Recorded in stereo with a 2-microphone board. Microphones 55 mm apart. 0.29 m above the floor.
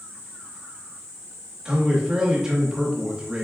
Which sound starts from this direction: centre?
A man speaking, at 1.6 s.